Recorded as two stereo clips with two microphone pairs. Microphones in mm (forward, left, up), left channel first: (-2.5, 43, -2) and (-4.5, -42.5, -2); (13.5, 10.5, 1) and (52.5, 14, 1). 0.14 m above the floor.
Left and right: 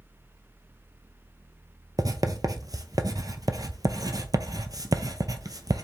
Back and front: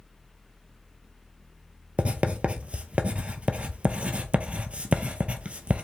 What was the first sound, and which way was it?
Writing, 50° right.